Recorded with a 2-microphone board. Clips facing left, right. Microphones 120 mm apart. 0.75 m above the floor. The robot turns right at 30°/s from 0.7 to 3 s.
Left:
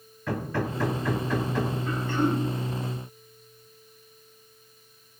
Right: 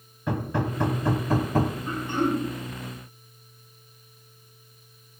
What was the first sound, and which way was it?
Hammering, 160° right.